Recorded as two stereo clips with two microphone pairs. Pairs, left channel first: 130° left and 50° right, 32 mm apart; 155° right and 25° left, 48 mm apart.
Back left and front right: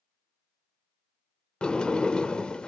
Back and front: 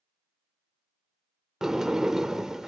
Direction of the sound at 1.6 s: 105° left.